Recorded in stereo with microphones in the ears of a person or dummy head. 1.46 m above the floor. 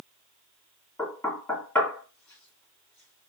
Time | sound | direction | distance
1.0 | knocking | 15° left (ahead or behind) | 3 m